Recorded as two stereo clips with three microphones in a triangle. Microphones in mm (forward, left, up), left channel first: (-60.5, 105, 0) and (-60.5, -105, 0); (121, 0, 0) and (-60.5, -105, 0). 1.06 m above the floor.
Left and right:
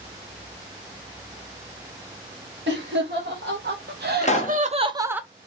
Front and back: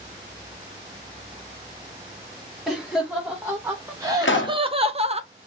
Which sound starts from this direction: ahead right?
Laughter, at 2.7 s.